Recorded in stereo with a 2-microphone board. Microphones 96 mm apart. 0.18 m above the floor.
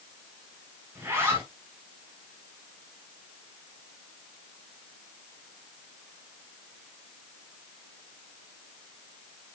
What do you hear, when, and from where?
0.9 s a zipper: 25° right (ahead or behind), 5 m